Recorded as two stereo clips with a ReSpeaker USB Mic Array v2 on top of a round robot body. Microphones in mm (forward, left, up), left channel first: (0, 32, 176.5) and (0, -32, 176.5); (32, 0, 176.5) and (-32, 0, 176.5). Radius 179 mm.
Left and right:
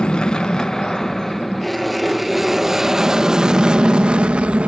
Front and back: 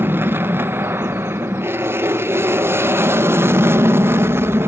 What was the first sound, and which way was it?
An aircraft, 155° left.